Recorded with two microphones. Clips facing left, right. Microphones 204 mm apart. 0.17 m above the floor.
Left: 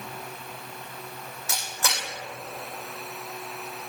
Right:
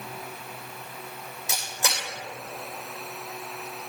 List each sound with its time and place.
1.5 s a camera shutter: 15° right (ahead or behind), 4 m